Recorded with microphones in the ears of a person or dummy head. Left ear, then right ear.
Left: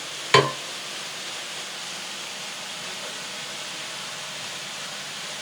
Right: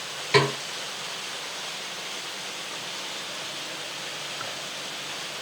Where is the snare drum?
50° left (ahead or behind), 0.6 m.